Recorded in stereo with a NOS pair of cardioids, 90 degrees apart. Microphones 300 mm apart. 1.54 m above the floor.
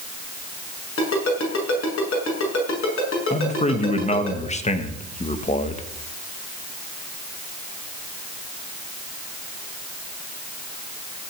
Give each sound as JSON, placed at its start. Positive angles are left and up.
{"t": 1.0, "sound": "a ringtone", "azimuth_deg": 45, "distance_m": 6.5}
{"t": 3.3, "sound": "a man speaking", "azimuth_deg": 20, "distance_m": 1.8}